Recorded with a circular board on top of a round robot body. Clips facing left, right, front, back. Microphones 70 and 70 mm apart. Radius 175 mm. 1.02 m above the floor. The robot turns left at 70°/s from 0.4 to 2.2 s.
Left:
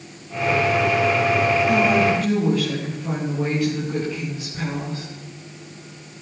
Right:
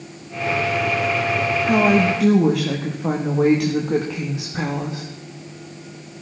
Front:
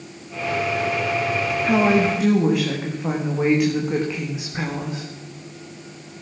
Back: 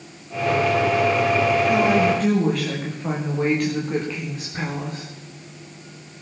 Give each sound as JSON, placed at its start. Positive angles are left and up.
{"t": 1.6, "sound": "a woman speaking", "azimuth_deg": -45, "distance_m": 1.4}